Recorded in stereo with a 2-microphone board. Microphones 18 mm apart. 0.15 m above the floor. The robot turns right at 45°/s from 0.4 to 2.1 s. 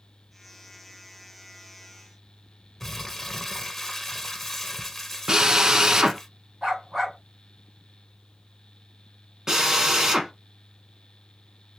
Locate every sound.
2.8 s crumpling: 15° left (ahead or behind), 0.5 m
5.3 s a drill: 35° right (ahead or behind), 0.5 m
6.6 s a dog barking: 30° right (ahead or behind), 1.7 m
9.5 s a drill: 30° right (ahead or behind), 1.2 m